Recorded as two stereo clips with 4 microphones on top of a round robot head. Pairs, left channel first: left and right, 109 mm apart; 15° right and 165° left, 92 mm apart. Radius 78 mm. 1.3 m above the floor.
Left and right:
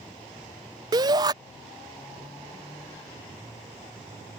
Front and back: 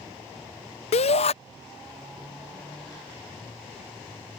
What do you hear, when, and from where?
0.9 s a shout: 30° right